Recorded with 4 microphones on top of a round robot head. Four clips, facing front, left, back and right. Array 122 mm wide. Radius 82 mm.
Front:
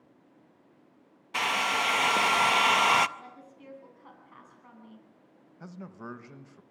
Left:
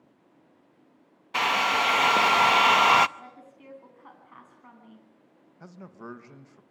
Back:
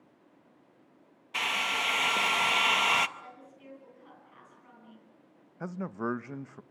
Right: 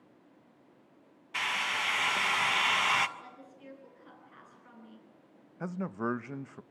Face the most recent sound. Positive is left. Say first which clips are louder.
# right 9 dB, back 9 dB
turn(degrees=-140)